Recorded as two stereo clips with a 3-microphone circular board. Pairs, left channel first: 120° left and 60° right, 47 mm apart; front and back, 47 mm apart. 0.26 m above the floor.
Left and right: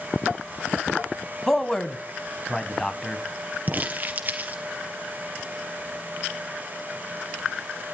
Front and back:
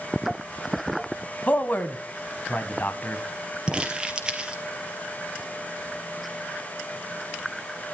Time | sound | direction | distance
1.5 | a man speaking | 45° left | 1.5 m
3.7 | crumpling | 110° right | 2.5 m